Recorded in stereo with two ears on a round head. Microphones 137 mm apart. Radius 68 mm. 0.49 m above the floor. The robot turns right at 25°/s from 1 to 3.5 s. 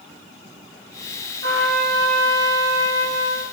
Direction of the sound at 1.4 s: 90° right.